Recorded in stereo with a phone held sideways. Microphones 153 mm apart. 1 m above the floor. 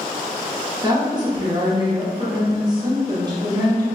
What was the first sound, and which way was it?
A woman speaking, 30° right (ahead or behind).